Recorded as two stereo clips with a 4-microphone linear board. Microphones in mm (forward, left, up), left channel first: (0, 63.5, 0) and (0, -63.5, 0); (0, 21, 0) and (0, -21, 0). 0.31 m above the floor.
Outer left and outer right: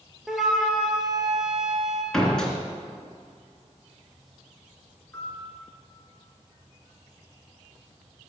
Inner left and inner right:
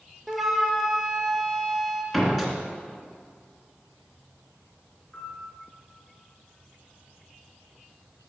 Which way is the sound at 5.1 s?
10° left (ahead or behind).